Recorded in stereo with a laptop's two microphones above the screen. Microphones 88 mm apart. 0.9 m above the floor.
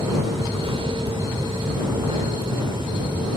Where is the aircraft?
65° right (ahead or behind).